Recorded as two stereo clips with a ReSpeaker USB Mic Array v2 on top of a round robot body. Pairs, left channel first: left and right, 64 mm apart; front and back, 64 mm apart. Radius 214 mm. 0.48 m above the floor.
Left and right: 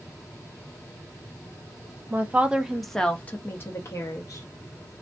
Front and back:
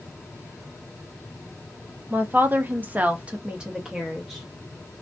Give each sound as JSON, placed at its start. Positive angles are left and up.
{"t": 2.1, "sound": "a woman speaking", "azimuth_deg": -135, "distance_m": 0.8}